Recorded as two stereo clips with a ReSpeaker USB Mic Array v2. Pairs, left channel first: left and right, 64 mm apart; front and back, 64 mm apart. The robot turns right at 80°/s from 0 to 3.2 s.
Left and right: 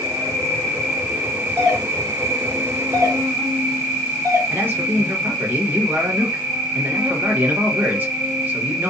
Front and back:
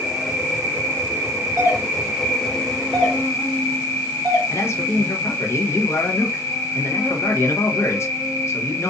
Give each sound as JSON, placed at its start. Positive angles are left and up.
{"t": 0.0, "sound": "an insect", "azimuth_deg": 90, "distance_m": 2.0}
{"t": 1.6, "sound": "a doorbell", "azimuth_deg": 150, "distance_m": 1.8}
{"t": 4.5, "sound": "a man speaking", "azimuth_deg": -35, "distance_m": 0.8}